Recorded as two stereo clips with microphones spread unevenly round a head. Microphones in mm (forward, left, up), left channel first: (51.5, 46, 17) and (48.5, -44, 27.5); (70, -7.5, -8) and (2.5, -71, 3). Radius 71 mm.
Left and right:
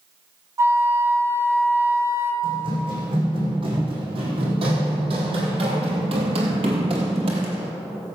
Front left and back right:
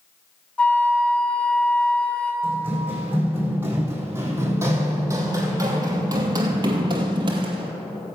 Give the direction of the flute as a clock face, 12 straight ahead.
1 o'clock.